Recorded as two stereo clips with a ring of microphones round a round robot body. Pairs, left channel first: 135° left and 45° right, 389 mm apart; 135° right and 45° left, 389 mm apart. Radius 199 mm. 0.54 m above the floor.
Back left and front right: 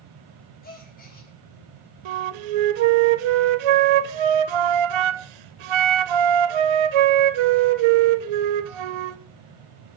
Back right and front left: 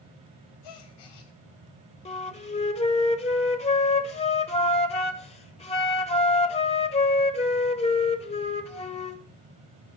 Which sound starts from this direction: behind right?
A gasp, at 0.6 s.